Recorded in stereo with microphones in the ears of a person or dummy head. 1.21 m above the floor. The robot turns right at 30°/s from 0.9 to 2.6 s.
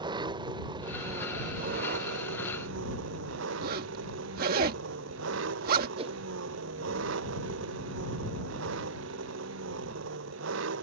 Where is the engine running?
155° right; by 10.8 s 105° right.